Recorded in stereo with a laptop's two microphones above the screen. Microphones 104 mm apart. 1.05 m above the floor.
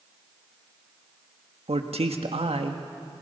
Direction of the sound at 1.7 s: 75° right (ahead or behind).